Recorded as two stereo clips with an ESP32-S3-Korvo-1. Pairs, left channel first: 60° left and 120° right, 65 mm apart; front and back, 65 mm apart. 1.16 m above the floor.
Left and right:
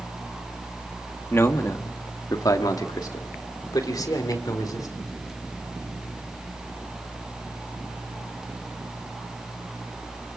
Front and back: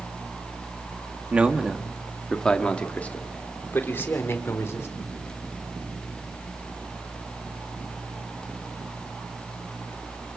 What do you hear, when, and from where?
1.3 s a man speaking: 110° left, 1.7 m; by 5.1 s 45° left, 3.5 m